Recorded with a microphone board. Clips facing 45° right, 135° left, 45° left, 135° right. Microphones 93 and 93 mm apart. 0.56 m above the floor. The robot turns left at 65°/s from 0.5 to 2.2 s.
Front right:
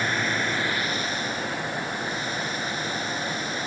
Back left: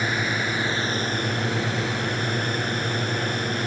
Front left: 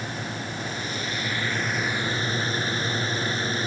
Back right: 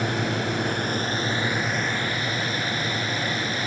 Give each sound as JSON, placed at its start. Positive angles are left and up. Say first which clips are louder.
{"t": 0.0, "sound": "a drone", "louder": "back left 1 dB, back right 7 dB", "azimuth_deg": -145}